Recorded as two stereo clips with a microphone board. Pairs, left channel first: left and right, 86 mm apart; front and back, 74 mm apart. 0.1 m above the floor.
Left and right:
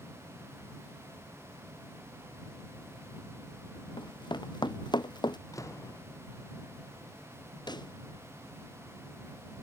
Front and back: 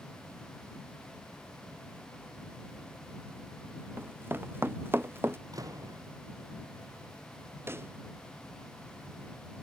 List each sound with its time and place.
4.0 s running footsteps: 120° left
5.5 s a door slam: 140° left
7.7 s a pop: 125° left